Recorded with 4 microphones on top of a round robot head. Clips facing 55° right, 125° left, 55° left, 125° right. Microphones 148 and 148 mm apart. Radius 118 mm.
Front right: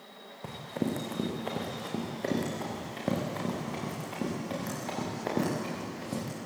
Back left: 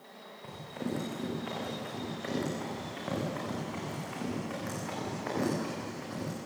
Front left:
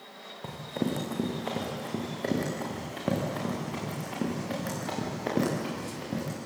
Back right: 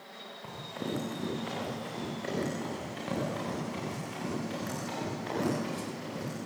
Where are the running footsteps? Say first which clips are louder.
Front right 5 dB, front left 6 dB; 5° right, 5.5 m; by 6.4 s 10° left, 9.5 m.